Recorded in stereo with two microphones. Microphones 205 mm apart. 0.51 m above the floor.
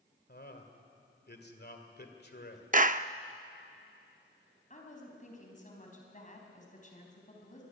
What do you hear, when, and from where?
0.3 s a man speaking: 50° left (ahead or behind), 2 m
2.7 s a clap: 40° right (ahead or behind), 0.5 m
4.7 s a woman speaking: 35° left (ahead or behind), 4 m